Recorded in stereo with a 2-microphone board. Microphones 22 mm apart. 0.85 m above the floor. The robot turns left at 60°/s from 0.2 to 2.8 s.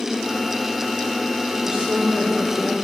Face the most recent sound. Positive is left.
turn(degrees=-105)